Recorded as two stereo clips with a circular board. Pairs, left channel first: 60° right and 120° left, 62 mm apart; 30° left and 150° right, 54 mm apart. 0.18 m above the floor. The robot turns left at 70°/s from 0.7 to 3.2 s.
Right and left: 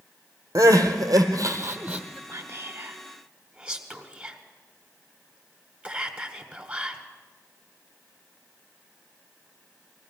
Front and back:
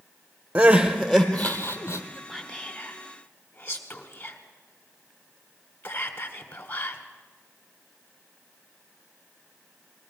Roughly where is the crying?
Behind left.